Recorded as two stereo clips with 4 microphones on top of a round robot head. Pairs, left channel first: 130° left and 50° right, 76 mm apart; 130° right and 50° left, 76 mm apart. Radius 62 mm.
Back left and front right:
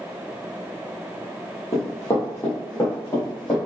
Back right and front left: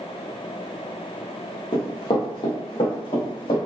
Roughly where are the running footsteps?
Behind.